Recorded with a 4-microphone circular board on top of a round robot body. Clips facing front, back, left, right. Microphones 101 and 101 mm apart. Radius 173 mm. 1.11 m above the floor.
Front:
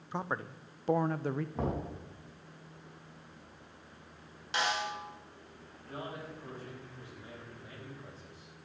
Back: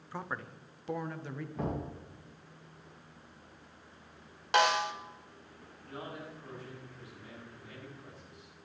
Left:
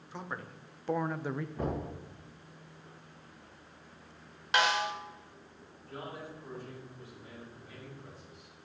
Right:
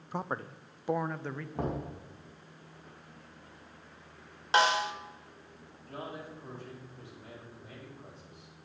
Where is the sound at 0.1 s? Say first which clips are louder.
Front 4 dB, right 6 dB; 65° right, 1.0 m; by 1.4 s 25° left, 0.9 m.